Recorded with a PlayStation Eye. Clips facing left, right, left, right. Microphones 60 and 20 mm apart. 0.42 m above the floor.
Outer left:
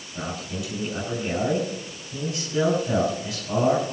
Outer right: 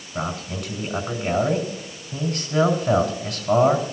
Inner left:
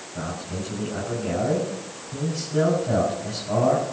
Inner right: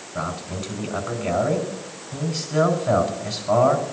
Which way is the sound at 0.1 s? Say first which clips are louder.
Outer right 3 dB, inner right 3 dB; 60° right (ahead or behind).